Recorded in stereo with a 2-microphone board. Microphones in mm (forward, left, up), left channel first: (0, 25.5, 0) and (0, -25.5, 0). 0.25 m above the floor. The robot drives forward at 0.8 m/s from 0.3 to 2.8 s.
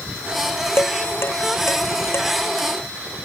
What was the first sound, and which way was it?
Dishes clattering, 55° left (ahead or behind).